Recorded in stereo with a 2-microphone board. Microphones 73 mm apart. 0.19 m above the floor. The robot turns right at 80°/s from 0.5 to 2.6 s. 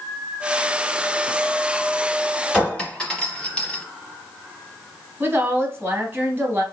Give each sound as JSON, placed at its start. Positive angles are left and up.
{"t": 2.5, "sound": "a clink", "side_deg": 10, "distance_m": 0.8}
{"t": 5.2, "sound": "a woman speaking", "side_deg": -30, "distance_m": 1.2}